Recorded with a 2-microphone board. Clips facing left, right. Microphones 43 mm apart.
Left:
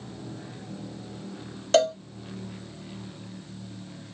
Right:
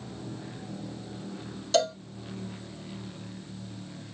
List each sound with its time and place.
1.7 s a cowbell: 45° left (ahead or behind), 1.5 m